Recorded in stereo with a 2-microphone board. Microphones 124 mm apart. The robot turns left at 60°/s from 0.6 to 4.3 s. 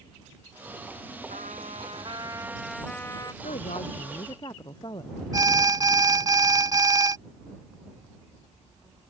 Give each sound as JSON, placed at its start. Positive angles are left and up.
{"t": 1.3, "sound": "a trumpet", "azimuth_deg": -90}
{"t": 3.4, "sound": "a woman speaking", "azimuth_deg": 90}
{"t": 5.3, "sound": "an alarm", "side_deg": -30}